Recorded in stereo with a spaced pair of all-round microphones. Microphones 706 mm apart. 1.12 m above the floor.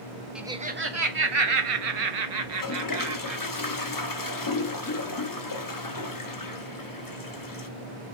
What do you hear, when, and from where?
0.3 s laughter: centre (ahead or behind), 0.8 m; by 3.4 s 85° right, 1.4 m
2.4 s a toilet flushing: 30° left (ahead or behind), 0.6 m